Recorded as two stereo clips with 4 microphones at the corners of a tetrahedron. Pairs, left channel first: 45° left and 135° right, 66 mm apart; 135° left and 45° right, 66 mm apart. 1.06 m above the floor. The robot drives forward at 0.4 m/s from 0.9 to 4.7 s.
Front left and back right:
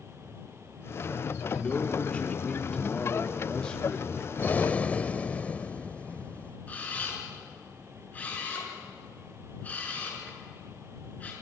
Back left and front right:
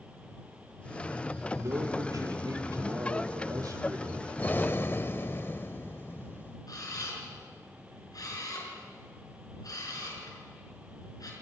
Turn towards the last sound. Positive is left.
turn(degrees=110)